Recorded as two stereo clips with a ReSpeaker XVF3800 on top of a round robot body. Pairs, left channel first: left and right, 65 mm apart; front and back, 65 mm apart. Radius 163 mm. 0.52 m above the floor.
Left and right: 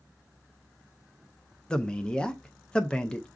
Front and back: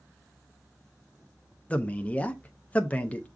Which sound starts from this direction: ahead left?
A man speaking, at 1.7 s.